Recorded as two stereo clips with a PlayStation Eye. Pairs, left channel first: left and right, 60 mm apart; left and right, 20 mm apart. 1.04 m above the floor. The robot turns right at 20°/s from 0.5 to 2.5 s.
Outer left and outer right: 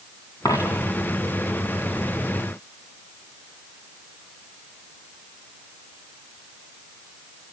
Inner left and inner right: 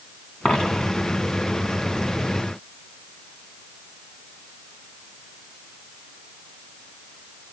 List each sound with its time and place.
0.5 s a dropped coin: 75° left (ahead or behind), 3.5 m; by 0.9 s 65° left (ahead or behind), 3.5 m